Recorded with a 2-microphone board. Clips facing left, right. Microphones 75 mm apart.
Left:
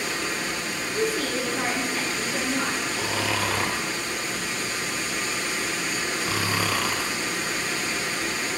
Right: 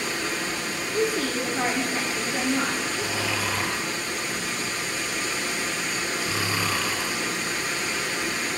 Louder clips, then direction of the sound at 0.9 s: Right 1 dB; 20° right (ahead or behind).